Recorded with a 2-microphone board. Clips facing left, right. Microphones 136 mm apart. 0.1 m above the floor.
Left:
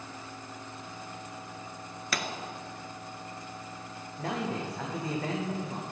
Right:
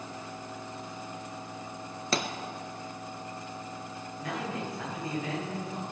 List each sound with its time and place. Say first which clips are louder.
2.1 s a pop: right 4 dB; 30° right (ahead or behind), 1.1 m
4.2 s a man speaking: left 3 dB; 75° left (ahead or behind), 6 m